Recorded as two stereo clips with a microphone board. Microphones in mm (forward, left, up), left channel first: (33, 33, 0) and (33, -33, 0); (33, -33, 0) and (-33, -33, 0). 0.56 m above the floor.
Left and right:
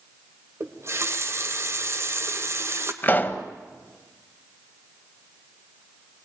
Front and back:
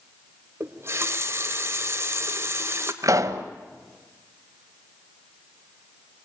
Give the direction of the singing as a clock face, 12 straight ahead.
No singing in this recording.